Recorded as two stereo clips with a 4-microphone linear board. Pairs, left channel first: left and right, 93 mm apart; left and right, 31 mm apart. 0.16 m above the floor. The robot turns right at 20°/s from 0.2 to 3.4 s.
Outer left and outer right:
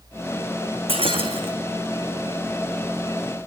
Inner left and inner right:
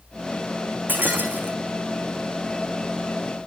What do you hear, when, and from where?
0.9 s breaking glass: 80° right, 2.5 m; by 1.6 s 65° right (ahead or behind), 2.5 m